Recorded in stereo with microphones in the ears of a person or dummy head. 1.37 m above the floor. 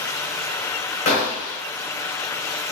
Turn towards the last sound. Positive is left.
turn(degrees=40)  # may be behind; listen again after turning